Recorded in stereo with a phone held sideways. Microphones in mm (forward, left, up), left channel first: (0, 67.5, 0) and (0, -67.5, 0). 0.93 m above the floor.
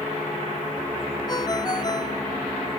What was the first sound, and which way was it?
A ringtone, 30° left (ahead or behind).